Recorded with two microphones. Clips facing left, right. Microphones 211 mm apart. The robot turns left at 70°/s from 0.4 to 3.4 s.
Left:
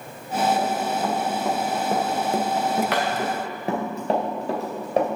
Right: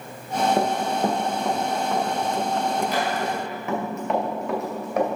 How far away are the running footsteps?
About 1.8 m.